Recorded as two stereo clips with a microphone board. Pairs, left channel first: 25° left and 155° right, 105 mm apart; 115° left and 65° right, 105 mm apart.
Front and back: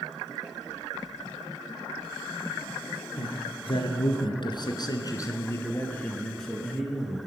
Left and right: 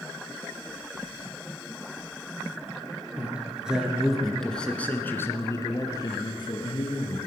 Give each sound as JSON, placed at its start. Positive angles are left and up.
{"t": 3.2, "sound": "a man speaking", "azimuth_deg": 10, "distance_m": 3.0}